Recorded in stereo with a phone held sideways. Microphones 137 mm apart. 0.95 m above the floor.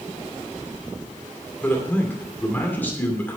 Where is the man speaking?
15° left (ahead or behind), 2.5 m.